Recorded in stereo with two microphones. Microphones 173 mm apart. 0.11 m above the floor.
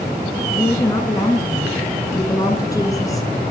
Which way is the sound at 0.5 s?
20° left (ahead or behind).